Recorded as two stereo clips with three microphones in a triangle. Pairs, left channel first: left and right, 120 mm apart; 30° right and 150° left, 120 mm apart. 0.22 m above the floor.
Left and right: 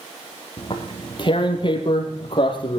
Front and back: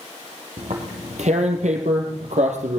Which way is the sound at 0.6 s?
140° left.